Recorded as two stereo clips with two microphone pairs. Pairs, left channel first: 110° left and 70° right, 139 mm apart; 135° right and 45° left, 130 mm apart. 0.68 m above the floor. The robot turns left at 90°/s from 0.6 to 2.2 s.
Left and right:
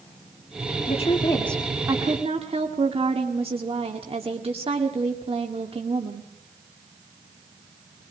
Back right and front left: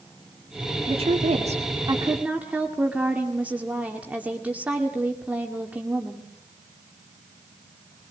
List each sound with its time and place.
0.9 s a woman speaking: 90° left, 1.8 m; by 6.3 s 30° right, 1.8 m